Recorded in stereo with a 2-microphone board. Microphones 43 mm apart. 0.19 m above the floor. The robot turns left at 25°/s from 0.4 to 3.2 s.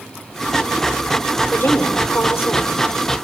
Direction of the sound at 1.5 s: 120° left.